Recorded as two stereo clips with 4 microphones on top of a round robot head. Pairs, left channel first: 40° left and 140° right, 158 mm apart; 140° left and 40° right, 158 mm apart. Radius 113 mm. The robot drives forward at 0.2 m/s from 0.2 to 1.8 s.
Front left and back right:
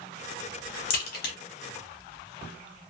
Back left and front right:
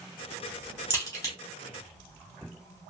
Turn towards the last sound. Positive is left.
turn(degrees=75)